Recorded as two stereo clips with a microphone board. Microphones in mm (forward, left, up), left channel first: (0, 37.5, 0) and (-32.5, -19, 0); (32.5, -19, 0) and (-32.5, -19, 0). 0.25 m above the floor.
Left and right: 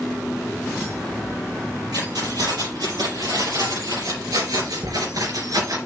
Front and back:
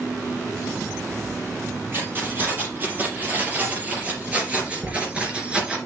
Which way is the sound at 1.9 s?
125° right.